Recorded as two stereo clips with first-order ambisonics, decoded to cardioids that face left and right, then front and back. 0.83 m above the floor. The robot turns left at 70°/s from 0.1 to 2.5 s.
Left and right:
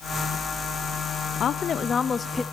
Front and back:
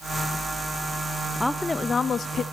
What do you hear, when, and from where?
1.4 s a woman speaking: 85° left, 0.6 m; by 2.4 s 15° left, 0.6 m